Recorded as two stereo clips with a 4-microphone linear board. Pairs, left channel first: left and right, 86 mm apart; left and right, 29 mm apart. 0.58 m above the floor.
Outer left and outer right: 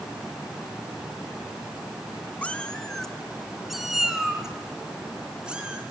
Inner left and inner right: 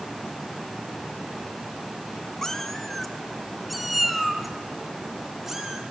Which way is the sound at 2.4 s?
15° left (ahead or behind).